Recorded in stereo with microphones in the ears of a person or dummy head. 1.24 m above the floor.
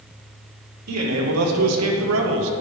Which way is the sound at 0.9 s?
85° right.